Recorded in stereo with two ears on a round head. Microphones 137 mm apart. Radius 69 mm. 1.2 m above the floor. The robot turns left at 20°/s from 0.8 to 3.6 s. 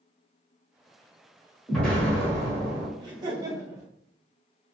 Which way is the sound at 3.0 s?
30° right (ahead or behind).